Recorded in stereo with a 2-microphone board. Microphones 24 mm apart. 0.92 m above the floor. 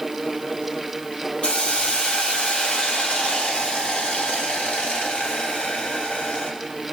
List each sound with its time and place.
1.4 s a hiss: 60° left (ahead or behind), 1.7 m